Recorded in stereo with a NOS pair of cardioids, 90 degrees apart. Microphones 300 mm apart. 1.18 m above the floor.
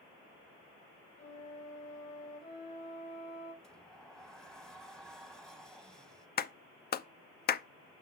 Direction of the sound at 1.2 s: 65° left.